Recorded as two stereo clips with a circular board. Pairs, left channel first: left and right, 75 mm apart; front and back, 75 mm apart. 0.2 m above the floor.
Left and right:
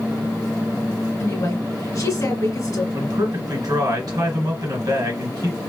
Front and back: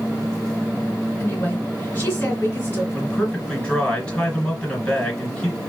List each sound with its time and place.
1.2 s a woman speaking: 55° left, 2 m
2.9 s a man speaking: 75° right, 2.5 m